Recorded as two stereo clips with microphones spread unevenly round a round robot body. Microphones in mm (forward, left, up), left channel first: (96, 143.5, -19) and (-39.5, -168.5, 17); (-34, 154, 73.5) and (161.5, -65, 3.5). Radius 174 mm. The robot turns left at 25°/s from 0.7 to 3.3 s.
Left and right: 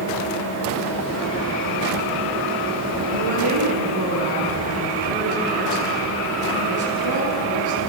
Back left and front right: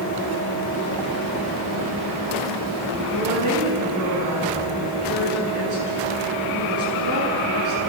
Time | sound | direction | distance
3.1 | a woman speaking | 90° right | 8.5 m